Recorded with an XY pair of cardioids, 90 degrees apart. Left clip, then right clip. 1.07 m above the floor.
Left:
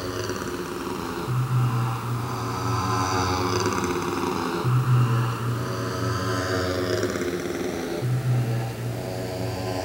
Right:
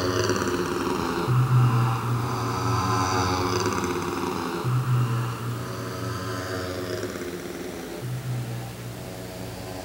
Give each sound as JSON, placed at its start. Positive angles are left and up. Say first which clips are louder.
{"t": 0.0, "sound": "a motorcycle", "louder": "right 5 dB", "azimuth_deg": -45}